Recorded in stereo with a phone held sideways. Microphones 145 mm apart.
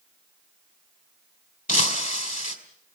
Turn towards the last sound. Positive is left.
turn(degrees=60)  # may be behind; listen again after turning